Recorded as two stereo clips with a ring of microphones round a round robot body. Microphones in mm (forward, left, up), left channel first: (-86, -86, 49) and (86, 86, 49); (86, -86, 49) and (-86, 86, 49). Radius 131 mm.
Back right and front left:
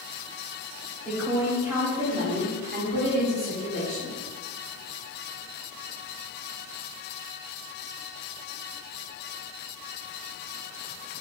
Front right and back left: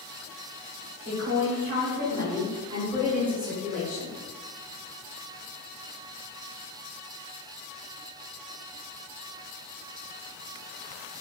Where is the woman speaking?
140° left, 1.5 m; by 4.2 s 35° left, 1.6 m.